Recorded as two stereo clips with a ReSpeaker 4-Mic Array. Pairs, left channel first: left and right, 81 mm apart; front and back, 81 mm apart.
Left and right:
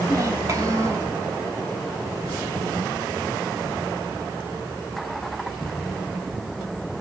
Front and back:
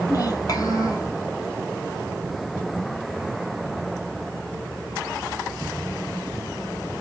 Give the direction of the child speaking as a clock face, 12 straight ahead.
1 o'clock.